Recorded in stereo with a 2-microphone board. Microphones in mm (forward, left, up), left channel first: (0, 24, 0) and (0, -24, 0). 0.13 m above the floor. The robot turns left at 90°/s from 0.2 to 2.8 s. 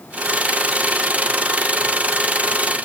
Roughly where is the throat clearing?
I don't hear throat clearing.